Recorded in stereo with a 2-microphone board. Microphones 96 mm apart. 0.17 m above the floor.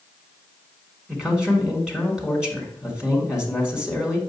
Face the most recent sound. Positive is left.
turn(degrees=-10)  # may be behind; listen again after turning